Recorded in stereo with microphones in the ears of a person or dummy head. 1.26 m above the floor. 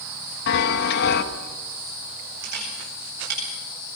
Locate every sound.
0.5 s a chime: 60° left (ahead or behind), 1.5 m
2.4 s a camera shutter: 60° right (ahead or behind), 8.5 m